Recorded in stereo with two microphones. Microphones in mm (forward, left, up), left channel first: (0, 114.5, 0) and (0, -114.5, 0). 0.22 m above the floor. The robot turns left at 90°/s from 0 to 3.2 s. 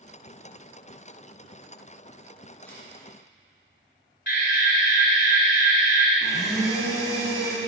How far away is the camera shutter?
About 2.5 m.